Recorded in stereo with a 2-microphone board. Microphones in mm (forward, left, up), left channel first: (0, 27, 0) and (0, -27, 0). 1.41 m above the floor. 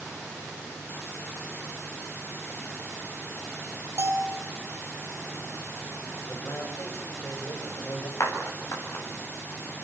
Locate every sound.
4.0 s a bell: 65° right (ahead or behind), 3 m
6.3 s a man speaking: 60° left (ahead or behind), 8.5 m
8.2 s a clap: 60° left (ahead or behind), 8 m